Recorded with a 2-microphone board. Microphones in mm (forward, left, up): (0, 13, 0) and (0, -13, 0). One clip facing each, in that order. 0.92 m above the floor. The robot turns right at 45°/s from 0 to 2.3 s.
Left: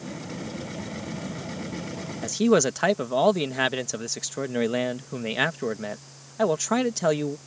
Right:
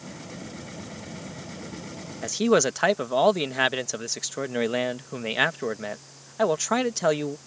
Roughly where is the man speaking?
Centre.